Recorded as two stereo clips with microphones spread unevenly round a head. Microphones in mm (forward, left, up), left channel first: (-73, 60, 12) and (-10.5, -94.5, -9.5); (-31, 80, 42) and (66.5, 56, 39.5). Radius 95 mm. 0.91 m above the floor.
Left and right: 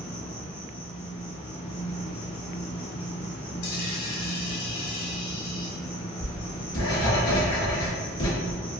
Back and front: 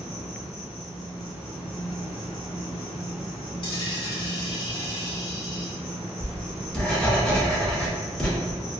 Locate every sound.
0.0 s an insect: 65° left, 1.7 m
3.6 s a dropped coin: 140° left, 1.5 m
6.2 s writing: 85° left, 1.2 m